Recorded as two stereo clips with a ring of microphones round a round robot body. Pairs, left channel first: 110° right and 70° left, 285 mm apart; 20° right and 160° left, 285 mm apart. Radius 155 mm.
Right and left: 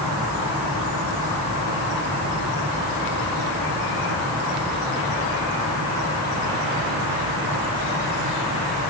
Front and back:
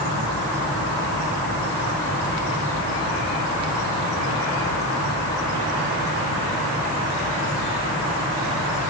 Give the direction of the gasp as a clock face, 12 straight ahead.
No gasp in this recording.